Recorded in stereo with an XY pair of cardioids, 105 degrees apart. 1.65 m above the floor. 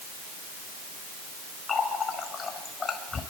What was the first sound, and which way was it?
A running tap, 40° left.